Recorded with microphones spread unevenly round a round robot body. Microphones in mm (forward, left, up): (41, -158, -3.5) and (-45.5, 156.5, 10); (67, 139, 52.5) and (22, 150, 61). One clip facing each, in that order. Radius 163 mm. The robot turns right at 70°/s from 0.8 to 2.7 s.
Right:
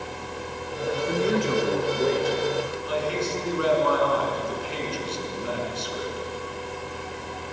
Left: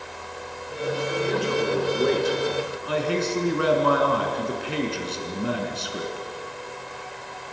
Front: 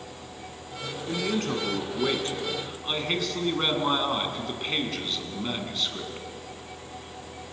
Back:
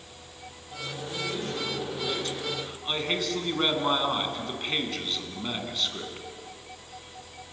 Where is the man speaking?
40° right, 5 m; by 6.3 s 75° left, 5 m.